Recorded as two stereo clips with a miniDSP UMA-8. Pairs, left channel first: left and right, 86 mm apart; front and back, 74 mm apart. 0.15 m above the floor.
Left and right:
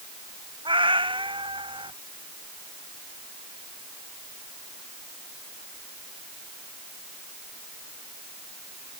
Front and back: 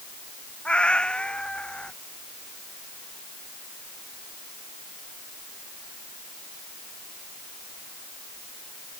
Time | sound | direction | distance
0.7 | a cat meowing | 75° right | ?